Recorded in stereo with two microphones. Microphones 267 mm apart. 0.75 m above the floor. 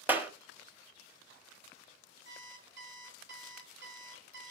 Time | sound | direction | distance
0.1 | a clap | 5° right (ahead or behind) | 1.4 m
2.2 | an alarm clock | 45° right (ahead or behind) | 3 m